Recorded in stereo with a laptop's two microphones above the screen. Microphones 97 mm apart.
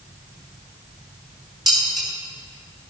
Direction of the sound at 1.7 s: 5° right (ahead or behind).